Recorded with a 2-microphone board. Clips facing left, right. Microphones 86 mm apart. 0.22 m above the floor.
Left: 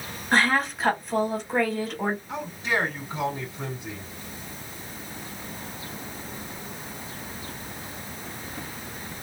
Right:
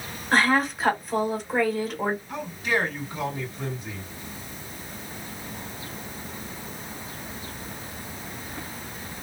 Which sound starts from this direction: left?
A man speaking, at 2.3 s.